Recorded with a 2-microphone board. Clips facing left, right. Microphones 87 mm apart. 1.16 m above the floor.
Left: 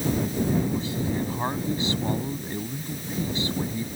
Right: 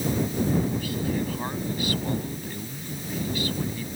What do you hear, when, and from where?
0.7 s a man speaking: 25° left (ahead or behind)